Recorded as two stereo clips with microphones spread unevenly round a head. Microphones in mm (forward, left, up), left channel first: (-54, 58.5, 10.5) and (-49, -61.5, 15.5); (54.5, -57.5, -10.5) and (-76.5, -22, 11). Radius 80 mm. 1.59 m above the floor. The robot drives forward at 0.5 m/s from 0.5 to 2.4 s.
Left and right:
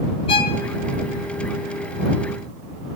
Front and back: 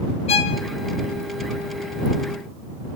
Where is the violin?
40° left, 0.9 m.